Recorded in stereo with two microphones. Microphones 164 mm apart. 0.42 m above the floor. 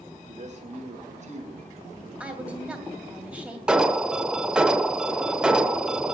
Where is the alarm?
5° right (ahead or behind), 0.7 m.